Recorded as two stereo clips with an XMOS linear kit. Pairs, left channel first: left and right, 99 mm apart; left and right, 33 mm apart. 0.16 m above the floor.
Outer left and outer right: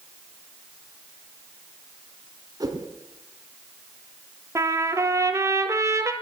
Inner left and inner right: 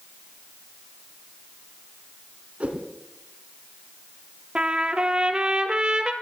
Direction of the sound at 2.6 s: 40° right (ahead or behind).